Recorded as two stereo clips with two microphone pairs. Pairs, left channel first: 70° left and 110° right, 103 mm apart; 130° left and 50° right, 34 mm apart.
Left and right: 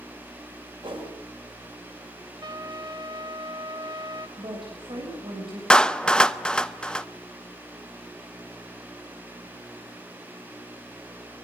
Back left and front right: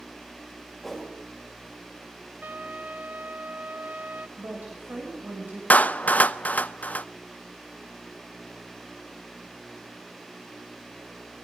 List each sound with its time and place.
0.8 s a whoosh: 140° right, 7.5 m
2.4 s a trumpet: 70° right, 1.2 m
4.4 s a woman speaking: 80° right, 7.5 m
5.7 s a clap: 145° left, 0.6 m